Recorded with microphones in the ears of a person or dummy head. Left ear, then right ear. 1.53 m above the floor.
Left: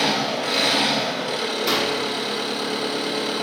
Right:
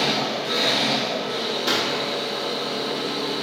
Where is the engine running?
70° left (ahead or behind), 3 m.